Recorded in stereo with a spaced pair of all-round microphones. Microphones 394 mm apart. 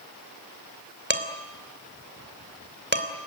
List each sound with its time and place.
1.1 s dishes clattering: 25° right (ahead or behind), 3.5 m